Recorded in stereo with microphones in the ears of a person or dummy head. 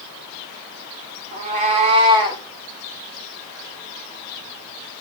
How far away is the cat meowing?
About 1.7 m.